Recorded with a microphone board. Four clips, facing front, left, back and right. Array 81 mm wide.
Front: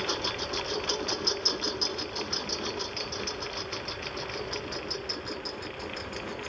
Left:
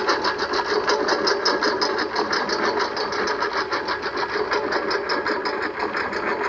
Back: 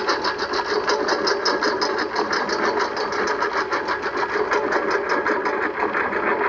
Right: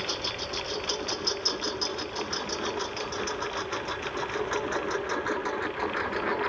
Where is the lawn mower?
135° left; by 6.5 s 165° left.